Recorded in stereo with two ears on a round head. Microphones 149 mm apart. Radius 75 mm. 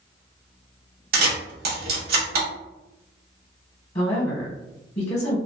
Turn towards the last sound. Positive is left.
turn(degrees=30)  # may be behind; listen again after turning